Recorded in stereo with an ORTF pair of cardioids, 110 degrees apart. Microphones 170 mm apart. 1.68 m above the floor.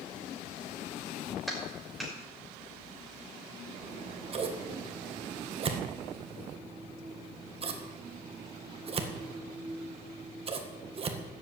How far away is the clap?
About 6 m.